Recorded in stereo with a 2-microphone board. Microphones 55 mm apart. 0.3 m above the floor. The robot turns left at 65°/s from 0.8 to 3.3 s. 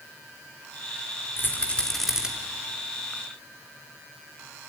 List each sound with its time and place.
1.4 s a rattle: 45° left (ahead or behind), 4 m; by 2.3 s 15° right (ahead or behind), 4 m